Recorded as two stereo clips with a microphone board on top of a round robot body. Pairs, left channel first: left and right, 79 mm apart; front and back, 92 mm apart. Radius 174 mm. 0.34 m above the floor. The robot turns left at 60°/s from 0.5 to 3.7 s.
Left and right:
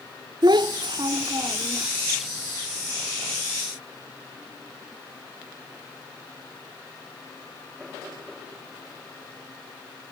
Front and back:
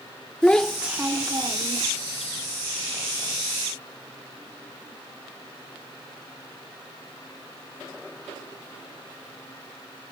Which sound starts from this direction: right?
A child speaking, at 0.4 s.